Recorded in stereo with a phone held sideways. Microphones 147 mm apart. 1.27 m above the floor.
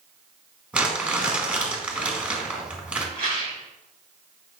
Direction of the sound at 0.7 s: 10° right (ahead or behind).